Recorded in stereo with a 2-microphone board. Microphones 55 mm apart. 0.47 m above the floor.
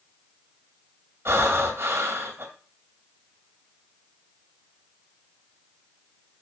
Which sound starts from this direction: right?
Breathing, at 1.2 s.